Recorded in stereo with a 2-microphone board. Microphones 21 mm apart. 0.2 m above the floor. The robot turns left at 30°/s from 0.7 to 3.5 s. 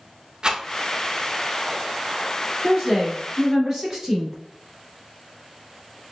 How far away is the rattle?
About 0.6 m.